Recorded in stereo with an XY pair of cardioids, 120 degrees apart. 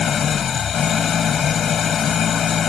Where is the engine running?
45° left.